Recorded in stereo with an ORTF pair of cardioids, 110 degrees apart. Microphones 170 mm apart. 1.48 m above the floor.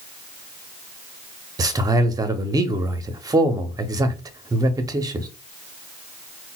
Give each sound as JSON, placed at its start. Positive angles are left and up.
{"t": 1.6, "sound": "a man speaking", "azimuth_deg": -25, "distance_m": 0.6}